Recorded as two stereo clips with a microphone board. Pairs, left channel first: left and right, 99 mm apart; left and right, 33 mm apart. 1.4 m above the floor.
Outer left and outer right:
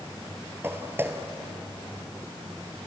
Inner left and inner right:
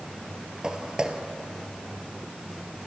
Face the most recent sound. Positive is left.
turn(degrees=-25)  # may be behind; listen again after turning